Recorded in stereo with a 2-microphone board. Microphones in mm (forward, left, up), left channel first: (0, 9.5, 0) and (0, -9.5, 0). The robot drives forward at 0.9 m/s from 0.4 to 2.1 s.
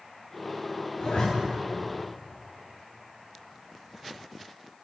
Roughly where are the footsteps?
No footsteps in this recording.